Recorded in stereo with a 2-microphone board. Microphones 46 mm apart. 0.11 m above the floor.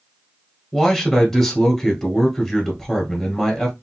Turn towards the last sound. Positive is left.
turn(degrees=10)  # may be behind; listen again after turning